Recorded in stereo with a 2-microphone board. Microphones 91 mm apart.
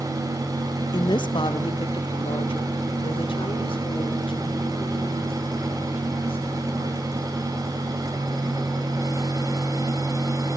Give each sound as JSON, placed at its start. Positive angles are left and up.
{"t": 0.9, "sound": "a woman speaking", "side_deg": 50, "distance_m": 1.3}